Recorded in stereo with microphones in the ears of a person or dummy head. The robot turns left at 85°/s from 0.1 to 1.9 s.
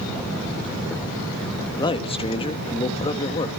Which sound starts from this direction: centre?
A man speaking, at 1.8 s.